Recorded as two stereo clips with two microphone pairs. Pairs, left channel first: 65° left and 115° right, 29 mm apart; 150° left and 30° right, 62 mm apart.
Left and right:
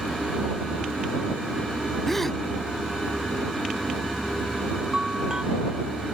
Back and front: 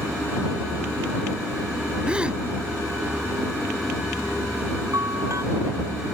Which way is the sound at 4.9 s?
55° right.